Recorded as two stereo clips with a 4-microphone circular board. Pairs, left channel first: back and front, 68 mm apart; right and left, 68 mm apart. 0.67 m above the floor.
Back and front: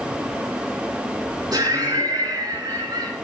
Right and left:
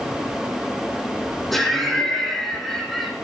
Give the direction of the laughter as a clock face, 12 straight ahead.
12 o'clock.